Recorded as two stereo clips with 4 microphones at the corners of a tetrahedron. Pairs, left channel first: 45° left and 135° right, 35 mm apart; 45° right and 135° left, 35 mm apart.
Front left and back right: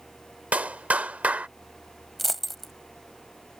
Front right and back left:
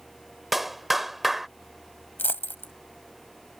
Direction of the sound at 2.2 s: 40° right.